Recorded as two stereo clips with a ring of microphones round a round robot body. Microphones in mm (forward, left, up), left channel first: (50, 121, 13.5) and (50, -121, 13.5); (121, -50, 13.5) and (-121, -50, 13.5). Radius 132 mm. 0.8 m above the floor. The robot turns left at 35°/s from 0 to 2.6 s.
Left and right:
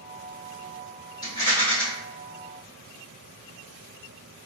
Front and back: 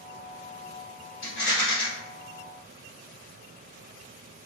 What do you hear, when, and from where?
1.2 s a rattle: 25° left, 1.3 m; by 1.8 s straight ahead, 1.3 m